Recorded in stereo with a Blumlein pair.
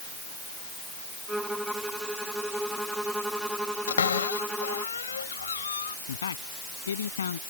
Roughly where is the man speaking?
Left.